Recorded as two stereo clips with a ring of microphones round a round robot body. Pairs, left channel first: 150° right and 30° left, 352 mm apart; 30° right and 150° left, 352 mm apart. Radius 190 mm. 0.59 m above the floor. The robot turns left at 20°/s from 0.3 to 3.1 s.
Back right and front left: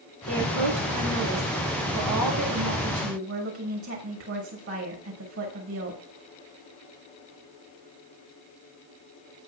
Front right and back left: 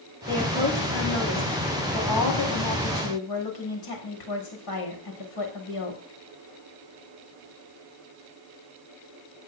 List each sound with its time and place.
0.3 s a woman speaking: 35° left, 6.5 m; by 6.0 s 20° right, 6.5 m